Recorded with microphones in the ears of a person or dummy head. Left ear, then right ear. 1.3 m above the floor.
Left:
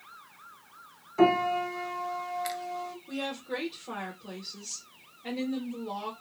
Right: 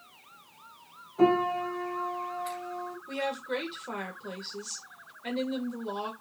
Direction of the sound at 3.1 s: 30° right (ahead or behind).